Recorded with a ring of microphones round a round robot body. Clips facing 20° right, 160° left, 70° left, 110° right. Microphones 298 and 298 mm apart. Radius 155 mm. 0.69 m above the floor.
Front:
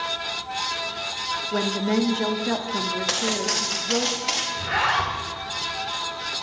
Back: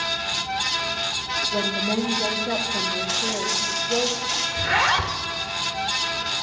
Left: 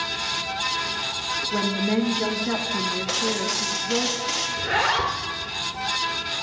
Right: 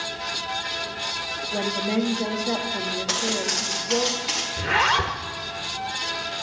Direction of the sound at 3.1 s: 20° right.